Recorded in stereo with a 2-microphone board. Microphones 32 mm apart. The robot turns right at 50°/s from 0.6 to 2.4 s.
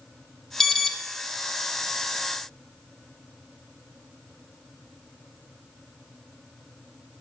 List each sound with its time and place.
0.6 s an alarm: 20° left (ahead or behind), 0.7 m